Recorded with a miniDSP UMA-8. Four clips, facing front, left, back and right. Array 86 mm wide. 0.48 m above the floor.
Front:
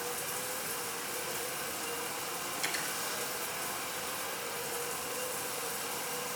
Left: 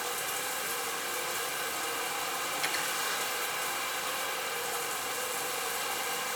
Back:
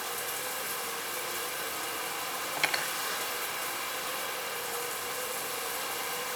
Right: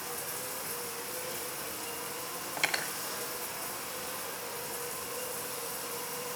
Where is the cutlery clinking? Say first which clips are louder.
Left 1 dB, back 8 dB; 140° right, 1.7 m.